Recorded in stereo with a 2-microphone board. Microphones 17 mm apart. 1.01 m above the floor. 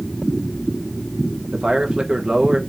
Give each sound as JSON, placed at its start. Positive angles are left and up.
{"t": 1.5, "sound": "a man speaking", "side_deg": -55, "distance_m": 0.9}